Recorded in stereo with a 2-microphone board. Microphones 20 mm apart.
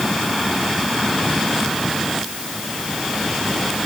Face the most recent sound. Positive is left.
No sound to turn to.